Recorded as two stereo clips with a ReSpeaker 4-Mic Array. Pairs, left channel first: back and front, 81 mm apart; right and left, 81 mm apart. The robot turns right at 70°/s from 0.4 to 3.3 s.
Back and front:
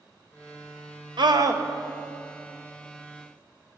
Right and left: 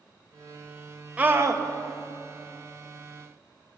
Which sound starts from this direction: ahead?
A scream, at 1.2 s.